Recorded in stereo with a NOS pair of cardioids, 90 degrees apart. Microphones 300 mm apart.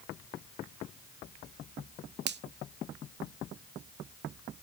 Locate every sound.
2.3 s a finger snap: 35° right, 0.7 m